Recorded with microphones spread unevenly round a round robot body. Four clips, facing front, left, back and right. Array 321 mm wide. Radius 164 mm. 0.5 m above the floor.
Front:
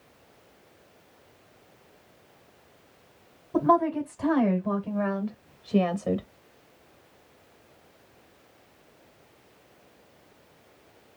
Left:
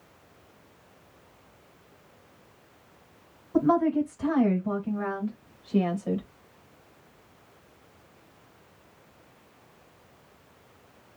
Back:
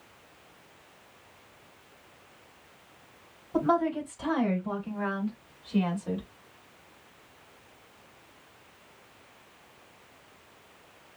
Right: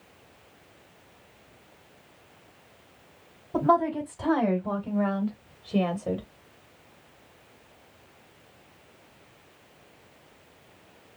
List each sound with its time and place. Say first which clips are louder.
3.5 s a woman speaking: left 1 dB, front 4 dB; 70° right, 3.5 m; by 6.2 s 50° right, 1.9 m